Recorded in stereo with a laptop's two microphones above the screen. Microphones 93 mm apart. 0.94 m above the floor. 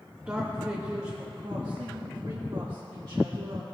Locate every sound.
0.3 s a man speaking: 15° right (ahead or behind), 1.7 m; by 3.7 s 65° right (ahead or behind), 2.5 m